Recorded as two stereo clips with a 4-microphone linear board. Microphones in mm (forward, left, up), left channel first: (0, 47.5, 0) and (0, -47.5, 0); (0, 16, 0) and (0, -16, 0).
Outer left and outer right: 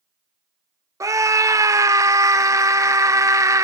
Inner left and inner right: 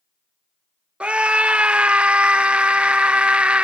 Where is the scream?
35° right (ahead or behind), 1.0 m.